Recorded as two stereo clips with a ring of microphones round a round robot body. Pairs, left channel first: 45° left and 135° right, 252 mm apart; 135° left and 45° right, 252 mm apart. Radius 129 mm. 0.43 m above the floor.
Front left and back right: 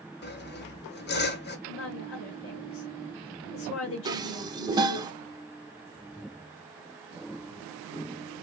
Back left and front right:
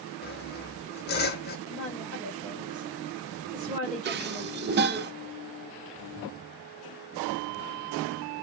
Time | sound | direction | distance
0.2 | sawing | 90° left | 1.2 m
1.7 | a woman speaking | 25° left | 2 m
4.0 | dishes clattering | 65° right | 0.6 m